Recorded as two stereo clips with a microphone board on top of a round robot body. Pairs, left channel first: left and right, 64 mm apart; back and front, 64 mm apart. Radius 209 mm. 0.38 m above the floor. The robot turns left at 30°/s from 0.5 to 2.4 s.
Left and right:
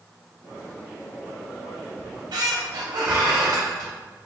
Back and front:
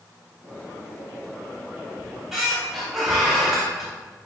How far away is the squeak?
About 0.6 m.